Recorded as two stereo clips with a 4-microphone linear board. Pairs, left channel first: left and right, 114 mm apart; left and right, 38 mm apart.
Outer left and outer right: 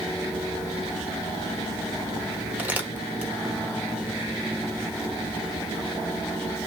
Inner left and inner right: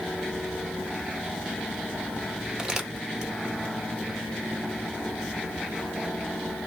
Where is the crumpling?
15° right (ahead or behind), 1.3 m.